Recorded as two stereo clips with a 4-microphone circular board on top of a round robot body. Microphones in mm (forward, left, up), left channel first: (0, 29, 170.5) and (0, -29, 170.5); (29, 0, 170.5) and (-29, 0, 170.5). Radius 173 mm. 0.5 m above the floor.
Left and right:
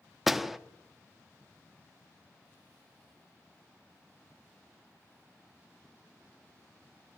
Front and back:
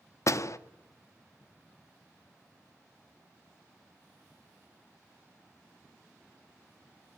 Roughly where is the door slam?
Ahead.